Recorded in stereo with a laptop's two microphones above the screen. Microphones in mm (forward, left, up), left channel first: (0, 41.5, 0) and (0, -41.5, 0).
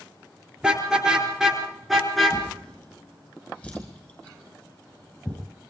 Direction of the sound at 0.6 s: 10° right (ahead or behind).